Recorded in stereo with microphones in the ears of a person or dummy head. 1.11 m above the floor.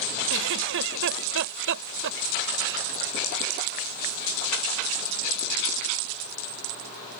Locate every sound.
0.3 s a giggle: 70° right (ahead or behind)